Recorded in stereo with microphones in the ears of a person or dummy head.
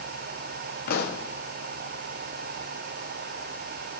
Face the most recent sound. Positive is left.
turn(degrees=50)  # may be behind; listen again after turning